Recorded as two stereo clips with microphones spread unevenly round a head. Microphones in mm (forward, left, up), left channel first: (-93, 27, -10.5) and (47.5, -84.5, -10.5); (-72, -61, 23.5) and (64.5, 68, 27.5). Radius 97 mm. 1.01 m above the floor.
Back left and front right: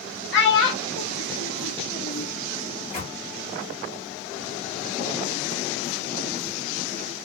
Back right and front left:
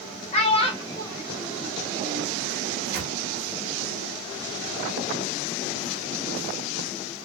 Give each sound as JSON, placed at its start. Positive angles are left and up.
{"t": 0.3, "sound": "a child speaking", "azimuth_deg": 165, "distance_m": 1.0}
{"t": 2.7, "sound": "a microwave", "azimuth_deg": 90, "distance_m": 1.2}